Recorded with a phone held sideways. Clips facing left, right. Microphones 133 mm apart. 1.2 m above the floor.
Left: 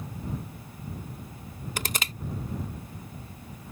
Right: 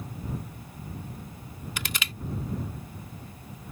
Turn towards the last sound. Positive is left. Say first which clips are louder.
# left 3 dB
turn(degrees=40)  # may be behind; listen again after turning